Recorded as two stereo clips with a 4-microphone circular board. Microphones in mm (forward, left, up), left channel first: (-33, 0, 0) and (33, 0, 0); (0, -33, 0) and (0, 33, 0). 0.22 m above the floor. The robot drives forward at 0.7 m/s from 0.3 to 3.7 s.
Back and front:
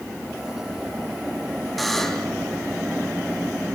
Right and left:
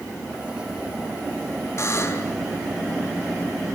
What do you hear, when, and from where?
1.8 s a buzzer: 95° right, 2.0 m; by 2.4 s 110° right, 2 m